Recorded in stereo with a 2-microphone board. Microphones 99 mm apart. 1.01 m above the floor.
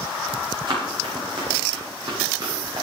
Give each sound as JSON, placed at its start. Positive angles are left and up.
{"t": 0.7, "sound": "running footsteps", "side_deg": -50, "distance_m": 7.5}